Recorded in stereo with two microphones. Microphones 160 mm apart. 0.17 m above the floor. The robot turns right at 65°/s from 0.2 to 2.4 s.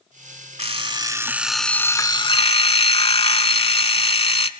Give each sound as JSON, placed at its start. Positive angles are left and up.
{"t": 0.6, "sound": "an alarm clock", "azimuth_deg": -60, "distance_m": 0.7}